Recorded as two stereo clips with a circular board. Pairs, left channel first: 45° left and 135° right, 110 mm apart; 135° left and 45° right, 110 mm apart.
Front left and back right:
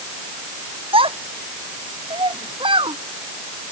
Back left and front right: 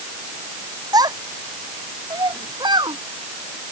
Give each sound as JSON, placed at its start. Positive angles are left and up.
{"t": 0.9, "sound": "a child speaking", "azimuth_deg": -100}